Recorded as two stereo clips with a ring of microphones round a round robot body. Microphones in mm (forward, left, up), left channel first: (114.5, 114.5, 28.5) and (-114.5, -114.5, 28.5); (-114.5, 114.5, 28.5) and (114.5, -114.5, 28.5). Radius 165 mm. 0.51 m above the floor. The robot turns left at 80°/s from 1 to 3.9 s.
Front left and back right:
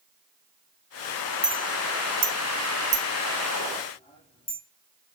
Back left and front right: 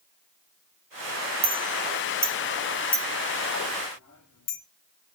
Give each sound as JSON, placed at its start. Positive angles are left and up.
{"t": 1.4, "sound": "a clink", "azimuth_deg": -50, "distance_m": 0.9}